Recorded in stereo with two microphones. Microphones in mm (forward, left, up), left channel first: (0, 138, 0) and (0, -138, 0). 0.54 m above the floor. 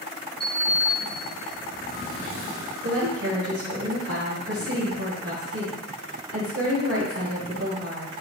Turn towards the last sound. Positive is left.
turn(degrees=-60)  # may be behind; listen again after turning